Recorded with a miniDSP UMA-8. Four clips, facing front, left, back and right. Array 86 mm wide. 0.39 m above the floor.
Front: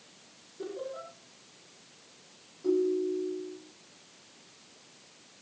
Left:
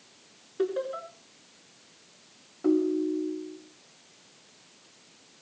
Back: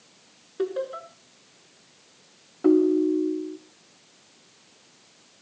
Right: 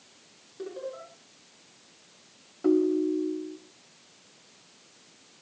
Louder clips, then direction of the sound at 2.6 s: Right 1 dB, back 8 dB; 170° right.